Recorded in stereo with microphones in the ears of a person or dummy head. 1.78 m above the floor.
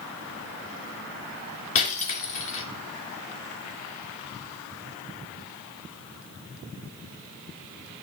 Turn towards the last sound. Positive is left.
turn(degrees=40)  # may be behind; listen again after turning